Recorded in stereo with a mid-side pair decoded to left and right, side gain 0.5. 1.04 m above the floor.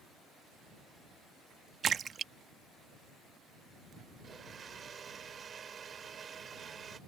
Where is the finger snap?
I don't hear a finger snap.